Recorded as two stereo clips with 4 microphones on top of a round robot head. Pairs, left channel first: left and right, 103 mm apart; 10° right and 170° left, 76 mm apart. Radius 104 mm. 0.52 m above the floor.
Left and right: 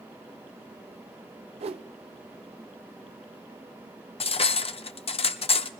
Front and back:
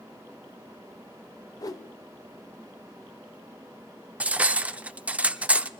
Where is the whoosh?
60° right, 0.6 m.